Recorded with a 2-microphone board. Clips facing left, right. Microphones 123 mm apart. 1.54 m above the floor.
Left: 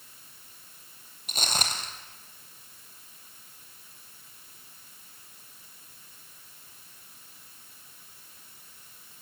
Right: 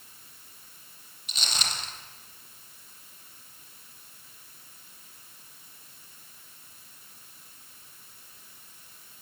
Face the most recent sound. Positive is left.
turn(degrees=45)  # may be behind; listen again after turning